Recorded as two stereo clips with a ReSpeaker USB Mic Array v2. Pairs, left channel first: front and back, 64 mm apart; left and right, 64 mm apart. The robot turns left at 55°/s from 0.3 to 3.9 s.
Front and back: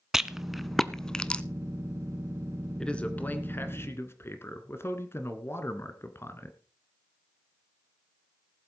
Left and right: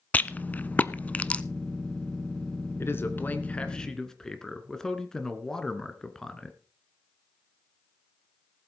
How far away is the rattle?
About 0.5 m.